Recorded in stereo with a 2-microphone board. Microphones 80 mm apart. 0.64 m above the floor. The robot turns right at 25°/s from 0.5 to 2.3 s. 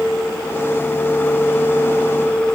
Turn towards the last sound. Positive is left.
No sound to turn to.